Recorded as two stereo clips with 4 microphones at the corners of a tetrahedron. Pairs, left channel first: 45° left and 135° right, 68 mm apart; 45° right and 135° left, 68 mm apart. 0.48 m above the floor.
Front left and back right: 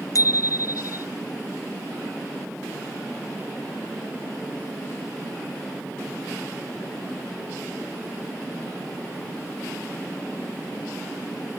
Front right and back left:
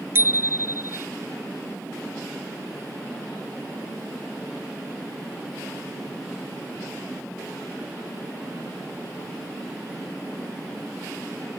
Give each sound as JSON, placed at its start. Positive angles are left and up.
{"t": 0.1, "sound": "a bicycle bell", "azimuth_deg": 80}